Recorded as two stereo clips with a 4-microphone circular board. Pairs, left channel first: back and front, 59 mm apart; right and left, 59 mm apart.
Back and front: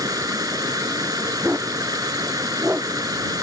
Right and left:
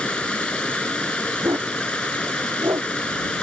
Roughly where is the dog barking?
Ahead left.